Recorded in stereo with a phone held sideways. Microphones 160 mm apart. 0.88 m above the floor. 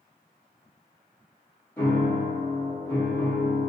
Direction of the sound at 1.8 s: 15° left (ahead or behind).